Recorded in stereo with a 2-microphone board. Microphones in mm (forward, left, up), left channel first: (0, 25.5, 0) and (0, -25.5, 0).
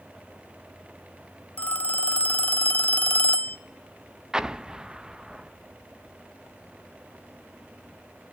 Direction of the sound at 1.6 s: 30° left (ahead or behind).